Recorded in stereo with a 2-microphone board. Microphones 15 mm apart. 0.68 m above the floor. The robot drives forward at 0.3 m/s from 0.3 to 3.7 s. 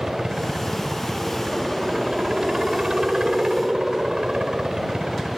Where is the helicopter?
50° right (ahead or behind); by 5.4 s 55° right (ahead or behind).